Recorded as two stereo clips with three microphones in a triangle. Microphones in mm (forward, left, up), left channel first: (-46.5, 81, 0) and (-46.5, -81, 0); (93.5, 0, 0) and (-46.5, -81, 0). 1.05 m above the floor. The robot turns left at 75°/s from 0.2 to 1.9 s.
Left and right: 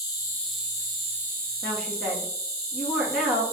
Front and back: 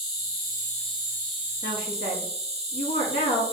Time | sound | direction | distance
0.0 | an insect | 25° left | 1.1 m
1.6 | a woman speaking | 20° left | 1.8 m